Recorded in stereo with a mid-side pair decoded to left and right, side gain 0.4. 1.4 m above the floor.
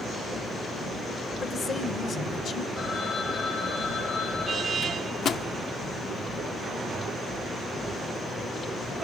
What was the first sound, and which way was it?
A man speaking, 65° left.